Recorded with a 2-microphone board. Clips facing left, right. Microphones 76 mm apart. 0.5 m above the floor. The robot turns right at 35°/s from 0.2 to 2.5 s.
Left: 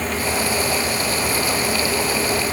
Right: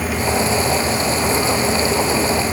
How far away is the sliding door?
I don't hear a sliding door.